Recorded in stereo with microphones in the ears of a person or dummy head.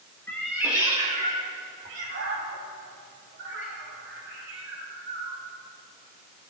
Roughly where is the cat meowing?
Centre.